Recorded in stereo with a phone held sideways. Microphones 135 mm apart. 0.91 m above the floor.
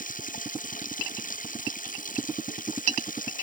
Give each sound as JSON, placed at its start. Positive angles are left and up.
{"t": 0.0, "sound": "running water", "side_deg": 85}